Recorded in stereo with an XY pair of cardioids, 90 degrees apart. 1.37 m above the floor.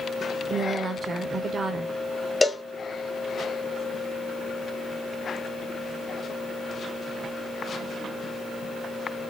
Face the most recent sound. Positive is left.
turn(degrees=15)